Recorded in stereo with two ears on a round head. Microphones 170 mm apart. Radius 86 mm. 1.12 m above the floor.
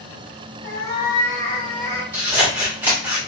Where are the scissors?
10° right (ahead or behind), 1.6 m.